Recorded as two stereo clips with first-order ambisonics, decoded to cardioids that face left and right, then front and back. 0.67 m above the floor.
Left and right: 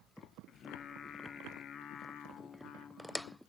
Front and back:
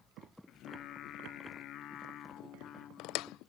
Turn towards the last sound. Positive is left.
turn(degrees=40)